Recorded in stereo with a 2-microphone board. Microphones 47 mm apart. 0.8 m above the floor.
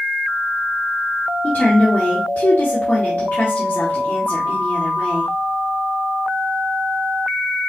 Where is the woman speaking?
40° left (ahead or behind), 1.4 m.